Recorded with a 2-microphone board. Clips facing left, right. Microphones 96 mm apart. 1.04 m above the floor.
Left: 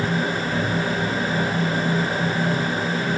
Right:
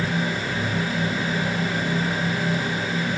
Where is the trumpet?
No trumpet in this recording.